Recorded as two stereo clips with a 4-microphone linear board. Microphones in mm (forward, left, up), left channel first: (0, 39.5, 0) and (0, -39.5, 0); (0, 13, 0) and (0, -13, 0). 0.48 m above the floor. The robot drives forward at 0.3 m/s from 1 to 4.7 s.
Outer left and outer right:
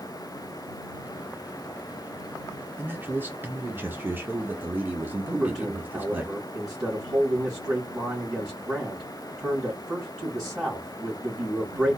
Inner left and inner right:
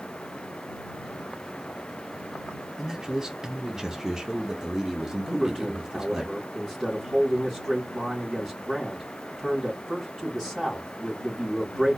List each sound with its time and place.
2.8 s a man speaking: 25° right (ahead or behind), 0.9 m
5.3 s a man speaking: 5° right (ahead or behind), 3 m